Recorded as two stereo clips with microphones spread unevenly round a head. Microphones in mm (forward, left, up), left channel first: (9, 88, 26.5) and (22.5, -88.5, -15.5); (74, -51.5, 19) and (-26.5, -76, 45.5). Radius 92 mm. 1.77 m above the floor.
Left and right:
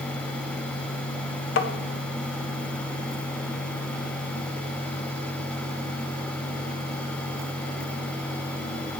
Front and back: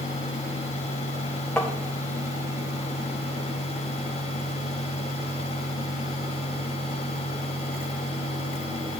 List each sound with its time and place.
1.6 s tapping: 100° left, 0.7 m